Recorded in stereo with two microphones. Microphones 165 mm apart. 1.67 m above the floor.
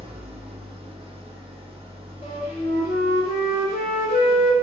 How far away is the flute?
About 1.6 m.